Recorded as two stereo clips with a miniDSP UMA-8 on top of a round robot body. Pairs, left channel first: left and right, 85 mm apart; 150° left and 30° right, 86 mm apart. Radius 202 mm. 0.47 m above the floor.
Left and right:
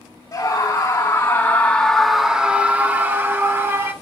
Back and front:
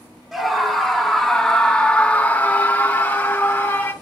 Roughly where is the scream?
Ahead left.